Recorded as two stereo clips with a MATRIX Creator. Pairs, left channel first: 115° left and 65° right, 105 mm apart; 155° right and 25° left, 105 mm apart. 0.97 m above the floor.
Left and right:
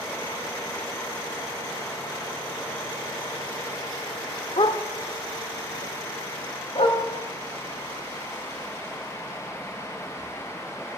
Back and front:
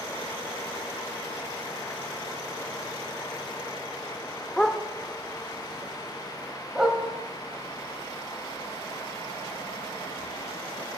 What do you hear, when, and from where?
4.6 s a dog barking: 120° left, 1.1 m; by 7.0 s 105° left, 2.5 m